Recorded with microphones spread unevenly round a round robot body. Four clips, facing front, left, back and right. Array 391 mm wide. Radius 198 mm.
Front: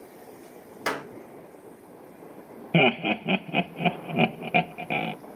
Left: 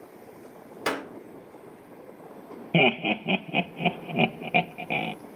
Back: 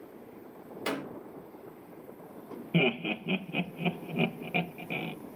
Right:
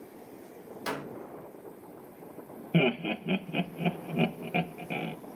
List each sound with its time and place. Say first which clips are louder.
0.9 s a clap: left 6 dB, front 4 dB; 60° left, 3 m
2.7 s laughter: left 4 dB, front 6 dB; 30° left, 0.6 m